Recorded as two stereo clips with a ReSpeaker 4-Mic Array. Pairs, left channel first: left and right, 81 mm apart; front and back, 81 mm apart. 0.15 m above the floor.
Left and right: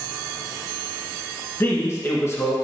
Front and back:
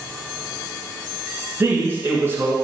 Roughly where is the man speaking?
Behind left.